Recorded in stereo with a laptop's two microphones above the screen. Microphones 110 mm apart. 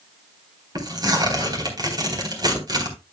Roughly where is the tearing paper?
Right.